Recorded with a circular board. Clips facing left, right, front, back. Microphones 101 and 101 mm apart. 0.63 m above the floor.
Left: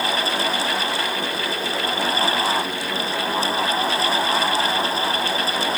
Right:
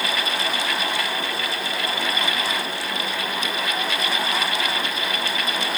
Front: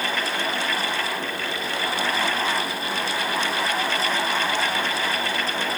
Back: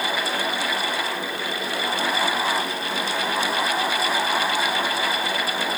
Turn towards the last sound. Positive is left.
No sound to turn to.